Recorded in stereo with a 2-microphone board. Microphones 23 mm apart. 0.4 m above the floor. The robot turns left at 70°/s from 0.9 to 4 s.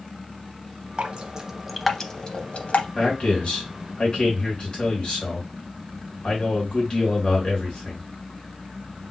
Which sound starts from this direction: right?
Dripping, at 1.0 s.